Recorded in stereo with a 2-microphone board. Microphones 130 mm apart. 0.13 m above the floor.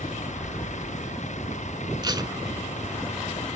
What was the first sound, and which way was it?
A vehicle, 65° left (ahead or behind).